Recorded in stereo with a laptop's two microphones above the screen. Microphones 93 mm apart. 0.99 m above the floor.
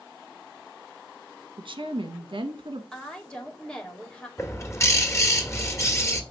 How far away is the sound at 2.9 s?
About 2.5 m.